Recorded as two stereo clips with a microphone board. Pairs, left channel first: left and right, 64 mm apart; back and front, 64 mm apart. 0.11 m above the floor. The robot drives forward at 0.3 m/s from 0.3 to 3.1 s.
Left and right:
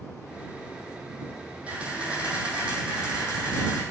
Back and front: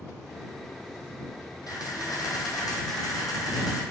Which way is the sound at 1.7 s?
160° right.